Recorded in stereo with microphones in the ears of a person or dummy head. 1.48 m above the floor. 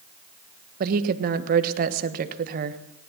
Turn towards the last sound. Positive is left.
turn(degrees=-50)  # may be behind; listen again after turning